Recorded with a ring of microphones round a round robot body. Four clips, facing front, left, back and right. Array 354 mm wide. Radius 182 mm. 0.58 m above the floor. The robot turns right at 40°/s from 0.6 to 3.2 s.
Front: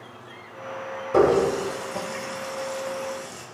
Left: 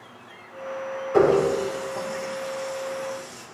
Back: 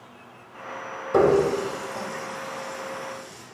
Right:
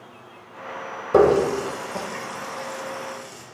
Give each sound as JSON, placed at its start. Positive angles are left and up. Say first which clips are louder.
{"t": 1.1, "sound": "a running tap", "louder": "right 2 dB, even", "azimuth_deg": -95, "distance_m": 1.6}